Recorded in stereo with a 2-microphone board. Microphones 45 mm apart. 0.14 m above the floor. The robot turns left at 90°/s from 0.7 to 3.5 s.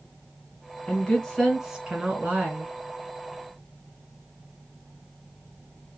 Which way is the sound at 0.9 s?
20° left (ahead or behind).